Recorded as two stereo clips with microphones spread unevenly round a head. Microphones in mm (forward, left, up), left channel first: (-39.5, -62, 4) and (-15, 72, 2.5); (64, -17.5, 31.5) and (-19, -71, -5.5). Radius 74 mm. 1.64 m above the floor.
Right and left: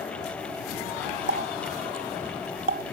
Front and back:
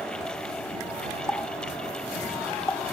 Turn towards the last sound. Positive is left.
turn(degrees=100)